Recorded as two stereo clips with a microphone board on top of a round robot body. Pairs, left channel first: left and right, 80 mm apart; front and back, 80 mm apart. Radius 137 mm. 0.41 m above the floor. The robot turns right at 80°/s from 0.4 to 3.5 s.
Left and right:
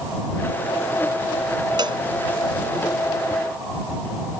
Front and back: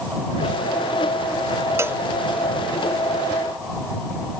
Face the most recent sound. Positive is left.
turn(degrees=15)